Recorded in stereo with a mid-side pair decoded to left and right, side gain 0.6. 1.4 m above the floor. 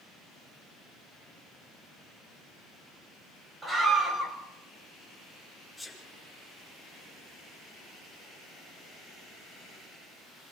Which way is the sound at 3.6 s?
10° right.